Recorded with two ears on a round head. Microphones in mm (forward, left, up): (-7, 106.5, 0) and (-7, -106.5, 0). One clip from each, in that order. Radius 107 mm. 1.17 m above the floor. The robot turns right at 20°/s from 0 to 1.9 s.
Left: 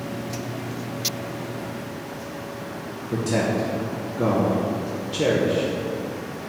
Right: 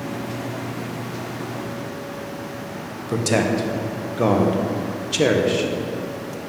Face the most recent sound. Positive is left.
turn(degrees=-35)  # may be behind; listen again after turning